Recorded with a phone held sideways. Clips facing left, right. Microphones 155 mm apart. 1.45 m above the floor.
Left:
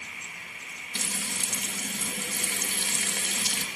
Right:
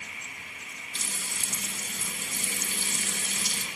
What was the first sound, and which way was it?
Frying, 70° left (ahead or behind).